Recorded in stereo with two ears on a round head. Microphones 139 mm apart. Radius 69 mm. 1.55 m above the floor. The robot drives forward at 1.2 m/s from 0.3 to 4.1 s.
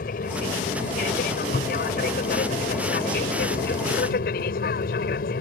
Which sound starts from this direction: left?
An aircraft, at 0.0 s.